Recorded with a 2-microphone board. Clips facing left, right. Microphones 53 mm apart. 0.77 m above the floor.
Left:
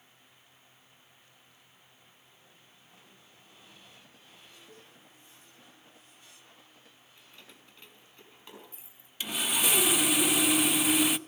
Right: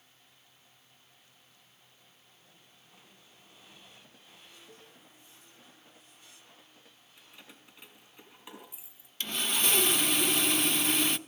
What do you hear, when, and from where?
4.7 s a cowbell: centre (ahead or behind), 8 m
7.2 s keys jangling: 15° right (ahead or behind), 5 m
9.2 s sawing: 5° left (ahead or behind), 0.8 m